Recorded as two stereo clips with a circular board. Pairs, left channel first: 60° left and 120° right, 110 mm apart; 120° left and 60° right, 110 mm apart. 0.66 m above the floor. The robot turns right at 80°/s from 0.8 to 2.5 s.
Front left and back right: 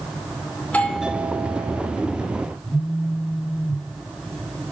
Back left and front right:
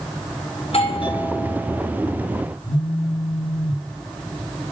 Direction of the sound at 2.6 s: 145° left.